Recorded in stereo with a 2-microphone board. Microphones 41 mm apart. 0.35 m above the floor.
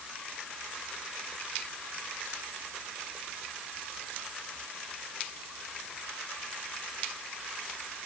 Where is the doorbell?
No doorbell in this recording.